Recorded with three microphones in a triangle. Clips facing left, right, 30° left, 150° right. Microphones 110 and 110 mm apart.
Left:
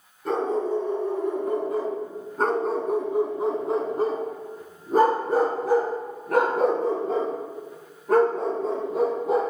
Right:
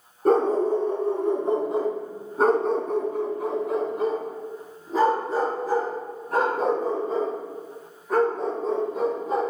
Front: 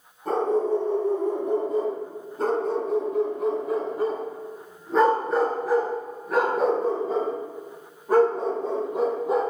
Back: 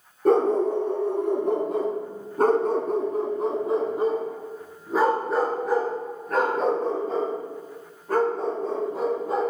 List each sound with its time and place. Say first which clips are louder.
0.2 s a dog barking: right 5 dB, back 3 dB; 135° right, 1.7 m; by 9.4 s 100° left, 3.5 m